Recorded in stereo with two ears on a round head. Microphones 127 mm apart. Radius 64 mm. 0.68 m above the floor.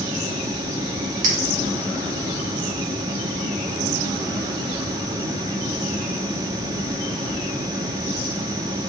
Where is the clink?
60° right (ahead or behind), 1.2 m.